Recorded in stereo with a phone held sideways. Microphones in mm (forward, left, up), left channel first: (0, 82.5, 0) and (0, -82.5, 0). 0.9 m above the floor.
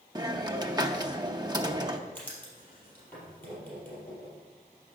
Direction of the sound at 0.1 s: 25° right (ahead or behind).